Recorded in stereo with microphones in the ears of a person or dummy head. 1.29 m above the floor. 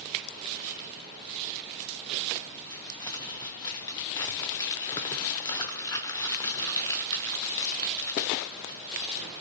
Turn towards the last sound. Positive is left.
turn(degrees=20)  # may be behind; listen again after turning